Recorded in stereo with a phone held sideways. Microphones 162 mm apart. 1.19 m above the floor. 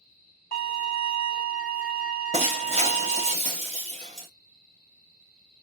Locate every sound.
0.5 s a violin: 65° left (ahead or behind), 1.3 m
2.3 s breaking glass: 40° right (ahead or behind), 0.9 m